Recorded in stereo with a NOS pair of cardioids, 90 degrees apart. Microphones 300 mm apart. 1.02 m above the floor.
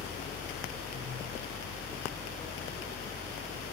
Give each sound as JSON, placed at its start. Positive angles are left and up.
{"t": 0.0, "sound": "a fan", "azimuth_deg": 35, "distance_m": 3.5}